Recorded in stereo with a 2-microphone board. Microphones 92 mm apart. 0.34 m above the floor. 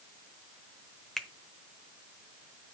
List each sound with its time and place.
1.2 s a finger snap: 5° left (ahead or behind), 0.8 m